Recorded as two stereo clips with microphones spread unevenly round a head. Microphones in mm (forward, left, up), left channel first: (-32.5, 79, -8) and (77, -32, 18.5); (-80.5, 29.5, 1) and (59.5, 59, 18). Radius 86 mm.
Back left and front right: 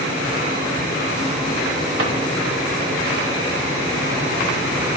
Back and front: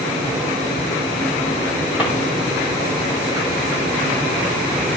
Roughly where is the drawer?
Right.